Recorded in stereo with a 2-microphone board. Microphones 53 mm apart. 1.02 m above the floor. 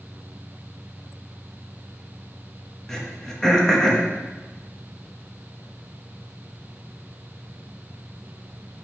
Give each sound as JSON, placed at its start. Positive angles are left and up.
{"t": 2.9, "sound": "throat clearing", "side_deg": 10, "distance_m": 1.3}